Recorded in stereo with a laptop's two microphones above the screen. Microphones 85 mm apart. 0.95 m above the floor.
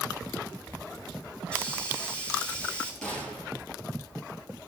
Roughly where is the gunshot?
Centre.